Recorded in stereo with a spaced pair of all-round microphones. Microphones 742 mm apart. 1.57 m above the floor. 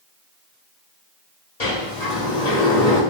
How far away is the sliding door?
About 1.6 m.